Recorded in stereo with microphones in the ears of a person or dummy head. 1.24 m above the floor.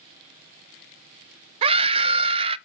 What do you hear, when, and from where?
1.6 s a scream: 35° right (ahead or behind), 0.6 m